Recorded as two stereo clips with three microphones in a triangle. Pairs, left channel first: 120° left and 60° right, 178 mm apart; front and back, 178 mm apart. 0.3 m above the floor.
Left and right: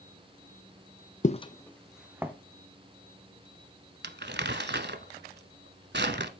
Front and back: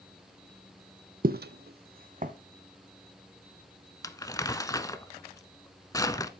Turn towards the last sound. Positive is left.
turn(degrees=-70)